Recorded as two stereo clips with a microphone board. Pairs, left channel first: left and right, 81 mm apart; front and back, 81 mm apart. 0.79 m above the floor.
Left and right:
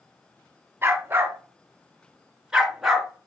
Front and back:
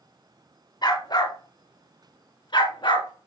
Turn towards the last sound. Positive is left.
turn(degrees=0)